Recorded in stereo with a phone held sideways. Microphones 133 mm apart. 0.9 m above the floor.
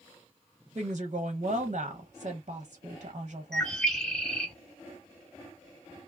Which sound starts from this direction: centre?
A bird, at 3.5 s.